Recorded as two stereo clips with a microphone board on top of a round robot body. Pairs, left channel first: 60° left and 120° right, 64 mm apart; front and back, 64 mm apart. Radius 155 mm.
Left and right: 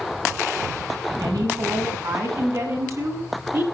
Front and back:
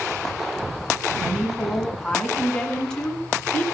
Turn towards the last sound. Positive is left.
turn(degrees=-75)